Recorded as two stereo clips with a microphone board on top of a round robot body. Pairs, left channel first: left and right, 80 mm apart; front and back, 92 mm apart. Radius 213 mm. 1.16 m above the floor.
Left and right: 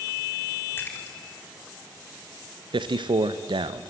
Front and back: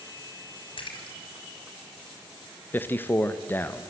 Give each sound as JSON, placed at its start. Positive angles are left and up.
{"t": 0.8, "sound": "a splash", "azimuth_deg": 25, "distance_m": 4.0}
{"t": 2.7, "sound": "a man speaking", "azimuth_deg": -70, "distance_m": 1.2}